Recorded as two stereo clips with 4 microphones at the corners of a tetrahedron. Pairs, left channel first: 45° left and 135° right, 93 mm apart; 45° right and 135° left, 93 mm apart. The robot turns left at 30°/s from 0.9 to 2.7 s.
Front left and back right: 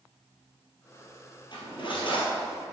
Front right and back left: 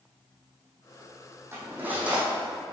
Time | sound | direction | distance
1.5 | cutlery clinking | 75° left | 2 m